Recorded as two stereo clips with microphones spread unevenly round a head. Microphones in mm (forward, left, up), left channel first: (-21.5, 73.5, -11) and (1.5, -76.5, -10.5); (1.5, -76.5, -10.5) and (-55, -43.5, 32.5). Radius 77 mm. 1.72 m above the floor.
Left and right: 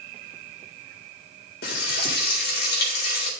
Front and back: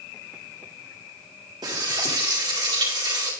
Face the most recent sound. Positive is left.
turn(degrees=120)